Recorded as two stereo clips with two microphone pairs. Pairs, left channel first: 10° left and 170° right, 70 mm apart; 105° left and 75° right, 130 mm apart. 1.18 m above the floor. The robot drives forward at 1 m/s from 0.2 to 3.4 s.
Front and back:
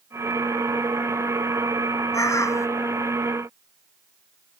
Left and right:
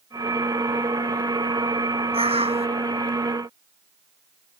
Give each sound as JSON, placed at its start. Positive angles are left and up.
{"t": 2.1, "sound": "a bird", "azimuth_deg": -30}